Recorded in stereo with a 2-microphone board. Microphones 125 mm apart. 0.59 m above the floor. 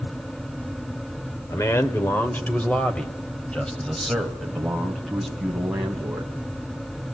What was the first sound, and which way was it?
A man speaking, 25° left (ahead or behind).